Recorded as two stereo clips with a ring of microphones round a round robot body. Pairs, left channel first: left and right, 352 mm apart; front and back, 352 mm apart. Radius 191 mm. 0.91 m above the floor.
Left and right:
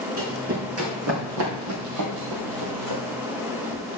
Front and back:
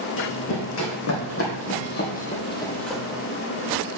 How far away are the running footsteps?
About 3.5 m.